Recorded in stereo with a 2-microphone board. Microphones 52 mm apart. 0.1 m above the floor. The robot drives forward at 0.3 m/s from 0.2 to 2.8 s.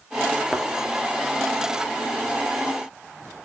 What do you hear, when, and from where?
0.5 s a thud: 5° right (ahead or behind), 0.7 m